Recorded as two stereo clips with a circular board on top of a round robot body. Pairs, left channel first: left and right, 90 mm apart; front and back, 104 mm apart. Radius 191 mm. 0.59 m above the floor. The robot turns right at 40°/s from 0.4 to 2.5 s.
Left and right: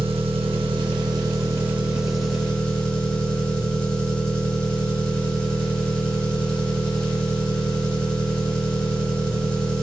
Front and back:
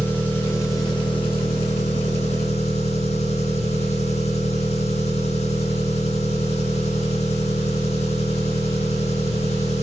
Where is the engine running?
75° right, 2 m; by 9.8 s 10° left, 2 m.